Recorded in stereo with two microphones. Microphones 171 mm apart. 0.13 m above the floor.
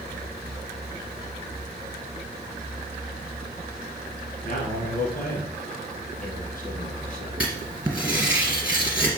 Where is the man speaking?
55° left (ahead or behind), 4 m.